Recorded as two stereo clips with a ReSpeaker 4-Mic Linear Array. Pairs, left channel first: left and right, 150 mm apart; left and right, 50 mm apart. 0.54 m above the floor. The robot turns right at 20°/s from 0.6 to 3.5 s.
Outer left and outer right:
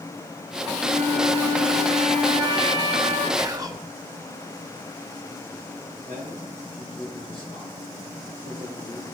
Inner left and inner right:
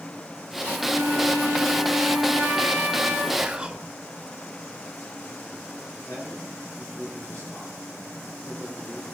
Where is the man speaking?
35° left (ahead or behind), 6.5 m.